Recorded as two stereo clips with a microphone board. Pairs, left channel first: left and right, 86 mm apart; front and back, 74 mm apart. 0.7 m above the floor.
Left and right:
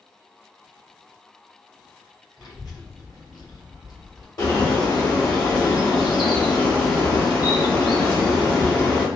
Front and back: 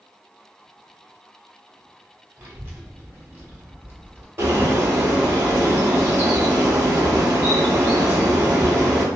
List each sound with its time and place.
2.4 s a child speaking: 120° left, 1.2 m
4.4 s a bird: 125° left, 2.0 m